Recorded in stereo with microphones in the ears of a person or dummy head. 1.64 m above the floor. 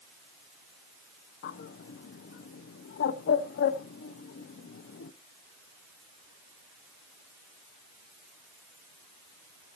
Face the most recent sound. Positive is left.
turn(degrees=55)  # may be behind; listen again after turning